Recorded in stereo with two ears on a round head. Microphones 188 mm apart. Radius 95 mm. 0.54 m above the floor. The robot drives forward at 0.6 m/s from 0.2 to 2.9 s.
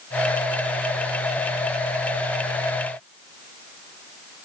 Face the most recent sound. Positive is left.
No sound to turn to.